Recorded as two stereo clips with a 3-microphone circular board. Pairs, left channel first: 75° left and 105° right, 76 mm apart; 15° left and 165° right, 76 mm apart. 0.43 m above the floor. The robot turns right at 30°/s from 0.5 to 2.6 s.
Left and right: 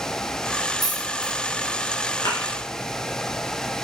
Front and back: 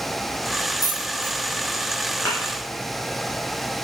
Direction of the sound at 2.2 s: 80° left.